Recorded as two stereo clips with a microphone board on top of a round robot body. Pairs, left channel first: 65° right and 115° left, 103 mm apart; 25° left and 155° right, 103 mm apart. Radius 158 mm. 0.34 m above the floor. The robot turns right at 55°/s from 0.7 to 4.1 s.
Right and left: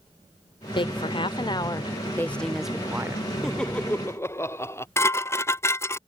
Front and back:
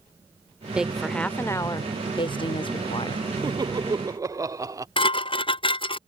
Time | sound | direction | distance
0.8 | a woman speaking | 80° right | ?
3.4 | laughter | 155° right | ?
5.0 | dishes clattering | 5° right | ?